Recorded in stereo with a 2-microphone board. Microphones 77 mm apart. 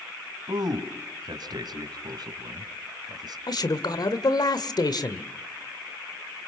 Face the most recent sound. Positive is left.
turn(degrees=60)  # may be behind; listen again after turning